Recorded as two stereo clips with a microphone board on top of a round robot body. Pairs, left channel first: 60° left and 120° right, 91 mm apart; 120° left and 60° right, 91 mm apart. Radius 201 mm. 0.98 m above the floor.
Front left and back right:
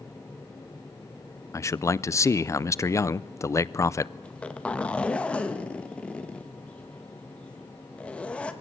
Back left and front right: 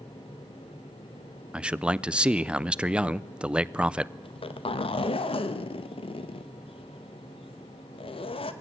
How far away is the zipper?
About 1.2 m.